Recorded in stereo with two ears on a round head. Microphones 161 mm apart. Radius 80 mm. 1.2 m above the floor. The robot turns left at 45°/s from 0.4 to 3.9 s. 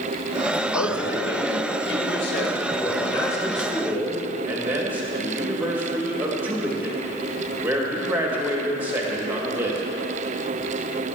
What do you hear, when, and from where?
0.7 s a man speaking: 130° left, 1.8 m; by 9.8 s 10° right, 1.8 m